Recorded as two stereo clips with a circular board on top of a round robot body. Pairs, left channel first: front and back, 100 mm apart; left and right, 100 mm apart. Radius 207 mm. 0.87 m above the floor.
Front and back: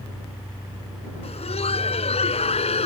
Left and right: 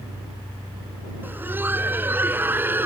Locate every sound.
1.2 s laughter: 20° right